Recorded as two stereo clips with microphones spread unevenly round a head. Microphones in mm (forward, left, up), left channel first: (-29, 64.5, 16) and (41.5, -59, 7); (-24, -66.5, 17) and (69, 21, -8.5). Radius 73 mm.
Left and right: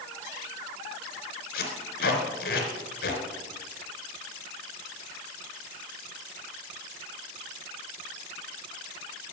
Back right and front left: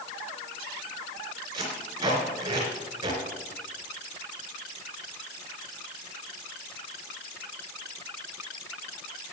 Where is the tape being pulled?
115° left, 3 m.